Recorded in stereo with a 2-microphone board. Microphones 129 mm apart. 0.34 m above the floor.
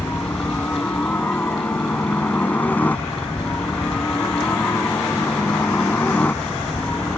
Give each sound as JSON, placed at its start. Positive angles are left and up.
{"t": 0.0, "sound": "a helicopter", "side_deg": 15}